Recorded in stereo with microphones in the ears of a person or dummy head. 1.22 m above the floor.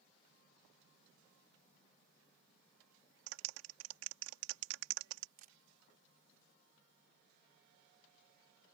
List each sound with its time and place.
3.3 s a clap: 80° right
5.4 s a camera shutter: 40° right (ahead or behind)